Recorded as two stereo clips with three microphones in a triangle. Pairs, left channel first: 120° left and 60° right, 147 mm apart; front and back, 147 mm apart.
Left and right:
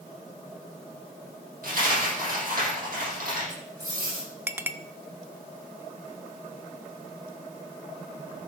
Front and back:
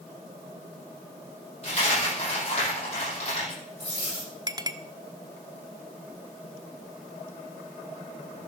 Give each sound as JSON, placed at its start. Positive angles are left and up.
{"t": 1.6, "sound": "a dropped coin", "azimuth_deg": -45, "distance_m": 9.0}
{"t": 4.5, "sound": "a clink", "azimuth_deg": -130, "distance_m": 0.7}